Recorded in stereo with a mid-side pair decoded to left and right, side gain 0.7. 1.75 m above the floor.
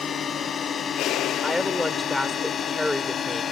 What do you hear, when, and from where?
0.0 s a drone: 30° left
1.4 s a woman speaking: 5° left